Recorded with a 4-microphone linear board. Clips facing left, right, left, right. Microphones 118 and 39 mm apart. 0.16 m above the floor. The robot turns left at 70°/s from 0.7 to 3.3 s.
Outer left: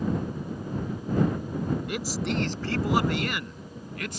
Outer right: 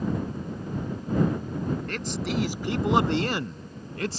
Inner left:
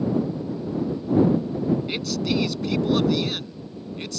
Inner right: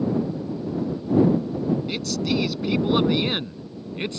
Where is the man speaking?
15° left (ahead or behind); by 4.2 s 35° right (ahead or behind).